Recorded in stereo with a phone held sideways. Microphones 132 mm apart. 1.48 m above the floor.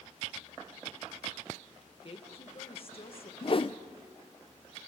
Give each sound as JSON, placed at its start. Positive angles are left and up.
{"t": 2.0, "sound": "a woman speaking", "side_deg": 45, "distance_m": 1.5}
{"t": 3.4, "sound": "a whoosh", "side_deg": 45, "distance_m": 0.5}